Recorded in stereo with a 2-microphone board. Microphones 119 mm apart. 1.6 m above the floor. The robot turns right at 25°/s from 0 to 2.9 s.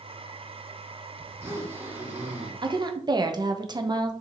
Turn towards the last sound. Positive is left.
turn(degrees=-35)  # may be behind; listen again after turning